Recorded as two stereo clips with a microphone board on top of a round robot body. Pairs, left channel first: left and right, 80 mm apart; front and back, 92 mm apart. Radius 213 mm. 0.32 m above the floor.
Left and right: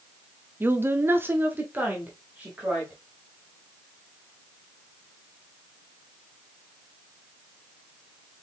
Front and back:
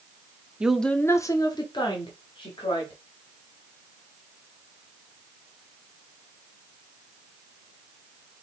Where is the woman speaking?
115° right, 0.9 m; by 3.0 s 15° right, 2.5 m.